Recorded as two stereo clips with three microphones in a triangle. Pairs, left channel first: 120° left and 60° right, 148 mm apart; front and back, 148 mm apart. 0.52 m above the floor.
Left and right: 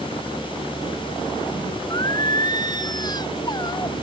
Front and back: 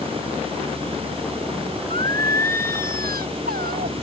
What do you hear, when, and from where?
1.9 s singing: 175° right